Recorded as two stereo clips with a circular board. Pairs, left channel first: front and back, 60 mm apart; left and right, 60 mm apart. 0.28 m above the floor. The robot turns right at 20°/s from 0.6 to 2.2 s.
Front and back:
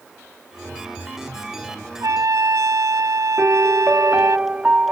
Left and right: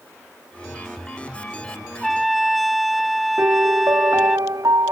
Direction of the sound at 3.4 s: 110° right.